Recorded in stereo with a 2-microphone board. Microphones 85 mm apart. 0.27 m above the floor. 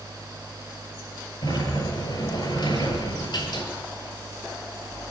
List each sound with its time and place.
1.4 s a sliding door: 60° left (ahead or behind), 6 m